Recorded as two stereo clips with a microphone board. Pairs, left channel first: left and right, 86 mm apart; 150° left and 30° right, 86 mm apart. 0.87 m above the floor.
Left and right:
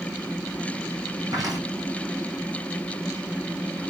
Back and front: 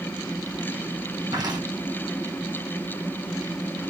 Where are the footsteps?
55° right, 2.5 m.